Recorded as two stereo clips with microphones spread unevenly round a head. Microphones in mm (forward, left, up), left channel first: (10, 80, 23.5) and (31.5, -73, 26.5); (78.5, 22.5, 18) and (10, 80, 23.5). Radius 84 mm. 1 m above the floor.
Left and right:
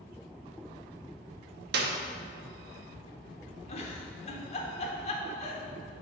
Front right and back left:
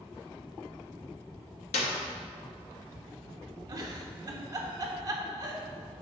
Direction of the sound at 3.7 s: 120° left.